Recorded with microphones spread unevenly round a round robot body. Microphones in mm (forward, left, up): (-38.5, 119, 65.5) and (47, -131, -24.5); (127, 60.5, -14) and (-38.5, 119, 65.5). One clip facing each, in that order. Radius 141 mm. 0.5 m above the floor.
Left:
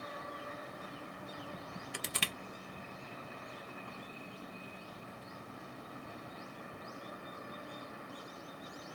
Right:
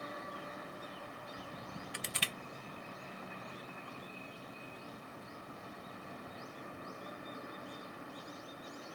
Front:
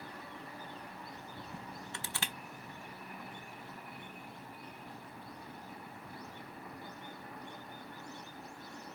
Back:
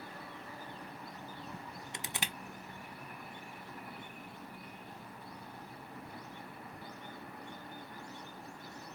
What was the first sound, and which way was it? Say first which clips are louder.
Crushing: left 2 dB, back 2 dB; 65° left.